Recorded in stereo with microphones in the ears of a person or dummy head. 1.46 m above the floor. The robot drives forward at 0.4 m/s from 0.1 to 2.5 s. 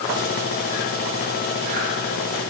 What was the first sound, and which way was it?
Only background noise.